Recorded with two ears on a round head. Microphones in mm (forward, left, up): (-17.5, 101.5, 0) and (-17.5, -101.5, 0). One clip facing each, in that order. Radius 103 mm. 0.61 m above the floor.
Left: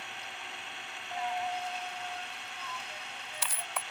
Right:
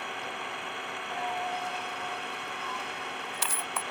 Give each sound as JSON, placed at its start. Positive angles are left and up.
{"t": 0.0, "sound": "an engine running", "side_deg": -50}
{"t": 1.1, "sound": "a dropped coin", "side_deg": -75}